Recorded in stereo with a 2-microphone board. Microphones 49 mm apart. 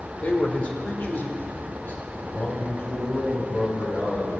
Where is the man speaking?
25° left (ahead or behind), 1.3 m; by 4.4 s 40° left (ahead or behind), 4.5 m.